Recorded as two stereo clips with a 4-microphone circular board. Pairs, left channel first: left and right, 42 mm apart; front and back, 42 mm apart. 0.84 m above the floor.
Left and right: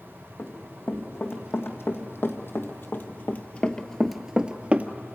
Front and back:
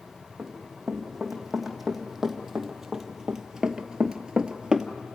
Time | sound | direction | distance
0.4 | running footsteps | 90° left | 3 m